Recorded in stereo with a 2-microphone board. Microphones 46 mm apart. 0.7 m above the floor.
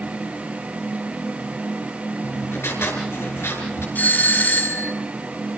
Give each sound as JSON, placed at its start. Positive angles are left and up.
{"t": 2.2, "sound": "writing", "side_deg": 65, "distance_m": 5.5}
{"t": 4.0, "sound": "a doorbell", "side_deg": 35, "distance_m": 3.0}